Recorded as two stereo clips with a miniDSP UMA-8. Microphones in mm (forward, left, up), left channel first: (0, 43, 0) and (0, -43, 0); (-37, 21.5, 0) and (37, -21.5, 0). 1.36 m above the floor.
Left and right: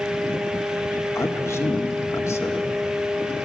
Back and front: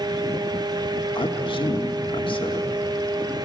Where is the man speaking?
150° left, 1.7 m.